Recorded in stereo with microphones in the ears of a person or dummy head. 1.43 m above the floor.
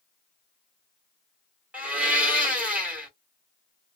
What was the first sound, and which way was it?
A blender, 10° right (ahead or behind).